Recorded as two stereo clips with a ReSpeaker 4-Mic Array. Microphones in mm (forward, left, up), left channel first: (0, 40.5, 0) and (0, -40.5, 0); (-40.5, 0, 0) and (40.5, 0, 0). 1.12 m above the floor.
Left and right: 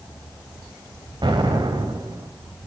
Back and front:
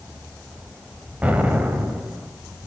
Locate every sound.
1.2 s an explosion: 75° right, 3.5 m